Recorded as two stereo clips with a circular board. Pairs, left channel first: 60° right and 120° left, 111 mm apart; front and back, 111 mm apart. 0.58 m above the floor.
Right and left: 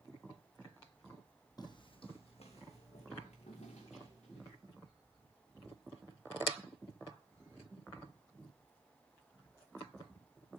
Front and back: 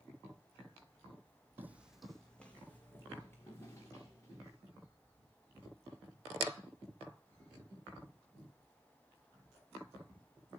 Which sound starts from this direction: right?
Footsteps, at 1.6 s.